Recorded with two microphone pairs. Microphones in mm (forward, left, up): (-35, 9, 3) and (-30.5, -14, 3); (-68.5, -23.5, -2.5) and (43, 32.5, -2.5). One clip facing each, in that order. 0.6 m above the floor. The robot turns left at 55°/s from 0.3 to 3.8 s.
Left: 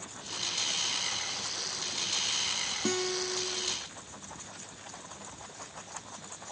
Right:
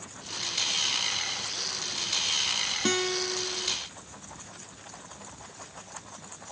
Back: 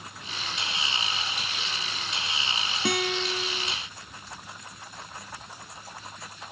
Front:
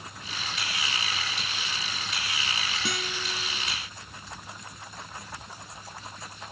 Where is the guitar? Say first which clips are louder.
Right 3 dB, back 11 dB; 120° right; by 3.7 s 170° right.